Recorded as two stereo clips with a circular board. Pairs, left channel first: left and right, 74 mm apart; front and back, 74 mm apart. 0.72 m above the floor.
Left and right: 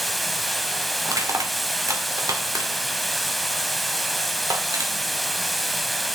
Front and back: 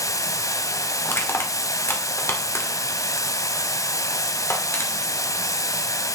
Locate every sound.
0.0 s running water: straight ahead, 0.7 m
1.1 s crushing: 55° right, 1.8 m